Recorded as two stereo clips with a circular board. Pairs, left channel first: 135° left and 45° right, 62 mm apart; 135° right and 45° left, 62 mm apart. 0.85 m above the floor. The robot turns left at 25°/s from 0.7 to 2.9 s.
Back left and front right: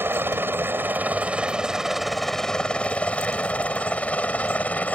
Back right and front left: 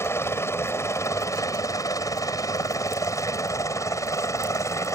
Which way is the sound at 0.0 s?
95° right.